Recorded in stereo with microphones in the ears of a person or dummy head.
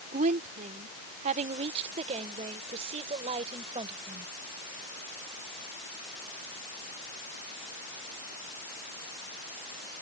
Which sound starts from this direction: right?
A woman speaking, at 0.1 s.